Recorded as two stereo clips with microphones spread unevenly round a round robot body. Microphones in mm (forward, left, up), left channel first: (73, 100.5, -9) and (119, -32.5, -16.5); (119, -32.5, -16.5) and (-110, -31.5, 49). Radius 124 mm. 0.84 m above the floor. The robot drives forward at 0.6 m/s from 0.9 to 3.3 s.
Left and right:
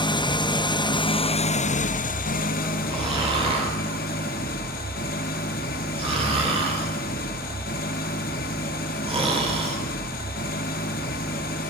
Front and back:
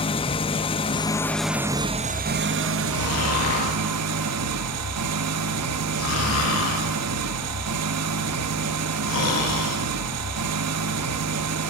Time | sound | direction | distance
0.0 | an engine running | 55° left | 0.9 m
2.9 | snoring | 20° right | 8.5 m